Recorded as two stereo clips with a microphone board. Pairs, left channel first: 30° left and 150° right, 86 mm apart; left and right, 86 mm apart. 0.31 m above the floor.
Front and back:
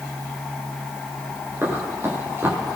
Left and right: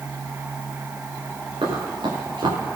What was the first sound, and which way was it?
Running footsteps, 90° right.